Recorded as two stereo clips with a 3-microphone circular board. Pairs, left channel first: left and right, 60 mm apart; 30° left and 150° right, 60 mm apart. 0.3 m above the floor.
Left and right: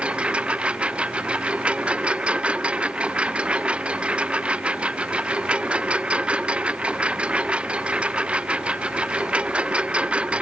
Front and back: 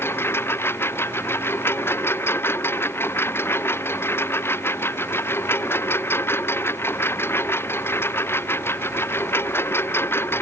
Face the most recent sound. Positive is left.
turn(degrees=-20)